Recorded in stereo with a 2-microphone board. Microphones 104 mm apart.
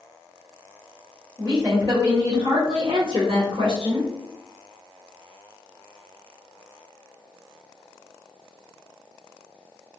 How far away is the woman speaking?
About 1.4 m.